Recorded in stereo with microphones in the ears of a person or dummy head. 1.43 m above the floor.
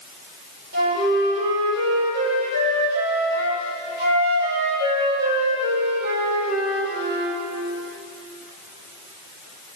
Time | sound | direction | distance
0.7 | a flute | 55° right (ahead or behind) | 5 m